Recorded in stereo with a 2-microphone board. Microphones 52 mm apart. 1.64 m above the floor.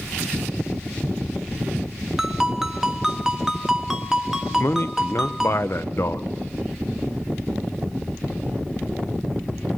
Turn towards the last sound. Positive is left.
turn(degrees=55)  # may be behind; listen again after turning